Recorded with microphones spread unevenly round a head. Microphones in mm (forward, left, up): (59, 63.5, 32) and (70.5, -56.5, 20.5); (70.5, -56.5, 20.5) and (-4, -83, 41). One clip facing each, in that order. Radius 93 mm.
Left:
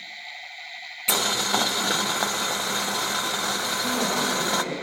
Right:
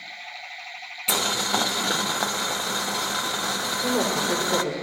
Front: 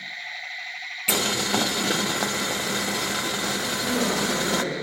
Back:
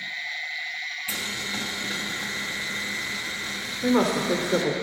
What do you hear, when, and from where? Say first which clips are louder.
1.1 s boiling: even, front 11 dB; 5° left, 0.6 m
3.8 s a woman speaking: right 3 dB, back 5 dB; 125° right, 3.5 m